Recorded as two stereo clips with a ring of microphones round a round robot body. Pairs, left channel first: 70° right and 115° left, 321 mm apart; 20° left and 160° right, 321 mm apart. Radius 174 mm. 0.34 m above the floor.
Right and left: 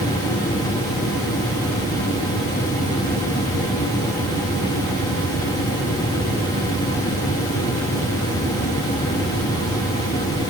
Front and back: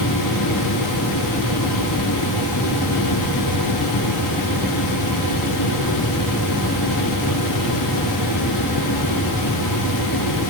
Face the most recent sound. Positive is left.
No sound to turn to.